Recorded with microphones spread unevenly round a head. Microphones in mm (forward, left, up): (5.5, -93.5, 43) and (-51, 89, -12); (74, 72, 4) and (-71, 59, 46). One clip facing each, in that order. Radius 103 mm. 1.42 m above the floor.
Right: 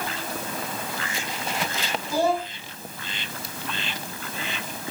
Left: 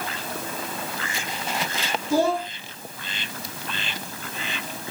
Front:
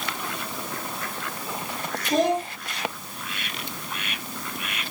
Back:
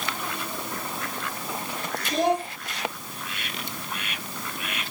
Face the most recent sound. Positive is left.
turn(degrees=55)